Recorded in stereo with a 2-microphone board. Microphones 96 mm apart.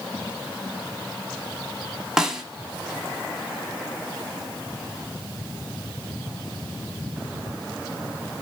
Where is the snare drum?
5° right (ahead or behind), 0.8 m.